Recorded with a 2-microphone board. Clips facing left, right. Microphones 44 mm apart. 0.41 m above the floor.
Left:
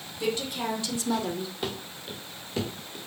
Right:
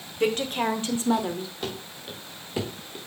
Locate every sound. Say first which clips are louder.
0.2 s a woman speaking: right 5 dB; 50° right (ahead or behind), 1.9 m; by 1.5 s 5° left (ahead or behind), 1.0 m
1.6 s running footsteps: even; 5° left (ahead or behind), 2.5 m; by 3.0 s 20° right (ahead or behind), 2 m